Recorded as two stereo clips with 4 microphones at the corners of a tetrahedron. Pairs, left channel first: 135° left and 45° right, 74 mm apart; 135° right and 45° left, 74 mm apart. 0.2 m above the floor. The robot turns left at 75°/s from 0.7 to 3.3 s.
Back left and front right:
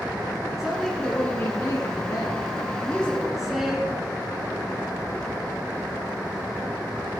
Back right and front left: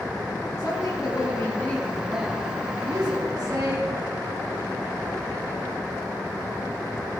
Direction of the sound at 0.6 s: 125° right.